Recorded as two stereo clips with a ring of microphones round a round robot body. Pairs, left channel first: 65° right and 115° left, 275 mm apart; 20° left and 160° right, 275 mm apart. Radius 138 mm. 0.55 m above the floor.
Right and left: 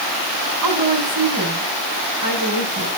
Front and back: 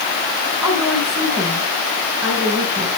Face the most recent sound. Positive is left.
turn(degrees=125)